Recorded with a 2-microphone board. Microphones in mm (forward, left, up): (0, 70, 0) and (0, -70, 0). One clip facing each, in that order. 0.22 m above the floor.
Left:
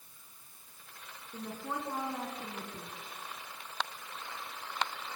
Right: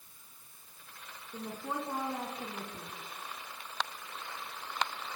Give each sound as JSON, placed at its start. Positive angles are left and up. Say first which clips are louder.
{"t": 1.3, "sound": "a woman speaking", "louder": "right 1 dB", "side_deg": -10, "distance_m": 2.5}